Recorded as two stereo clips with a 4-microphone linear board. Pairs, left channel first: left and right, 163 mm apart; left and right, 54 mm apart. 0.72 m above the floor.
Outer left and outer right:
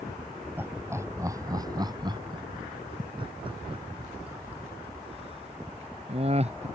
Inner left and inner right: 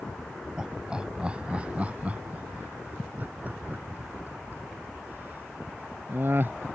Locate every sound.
0.6 s laughter: 15° right (ahead or behind); by 6.7 s 40° right (ahead or behind)